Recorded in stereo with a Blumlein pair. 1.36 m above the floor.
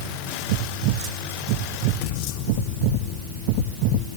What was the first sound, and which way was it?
Only background noise.